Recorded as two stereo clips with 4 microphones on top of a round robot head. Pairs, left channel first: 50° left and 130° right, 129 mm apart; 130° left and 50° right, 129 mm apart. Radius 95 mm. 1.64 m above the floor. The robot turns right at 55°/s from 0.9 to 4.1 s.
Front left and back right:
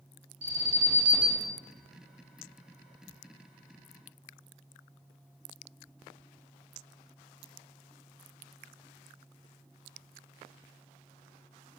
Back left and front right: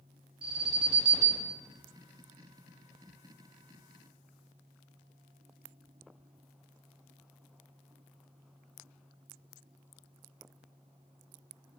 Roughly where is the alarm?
Right.